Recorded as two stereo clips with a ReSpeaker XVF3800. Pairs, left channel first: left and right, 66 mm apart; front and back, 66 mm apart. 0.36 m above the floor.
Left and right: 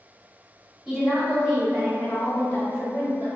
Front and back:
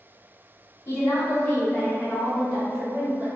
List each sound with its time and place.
0.8 s a woman speaking: 15° right, 1.2 m; by 3.3 s 115° left, 1.0 m